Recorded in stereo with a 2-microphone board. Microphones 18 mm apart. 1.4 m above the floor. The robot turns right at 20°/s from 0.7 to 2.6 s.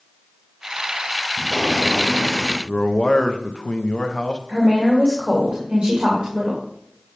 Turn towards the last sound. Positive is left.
turn(degrees=-85)